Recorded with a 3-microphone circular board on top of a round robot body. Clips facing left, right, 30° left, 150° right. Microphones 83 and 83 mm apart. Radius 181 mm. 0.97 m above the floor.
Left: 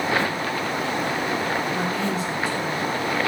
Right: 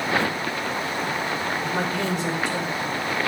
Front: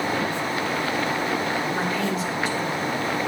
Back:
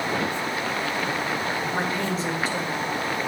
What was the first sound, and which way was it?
A woman speaking, 90° right.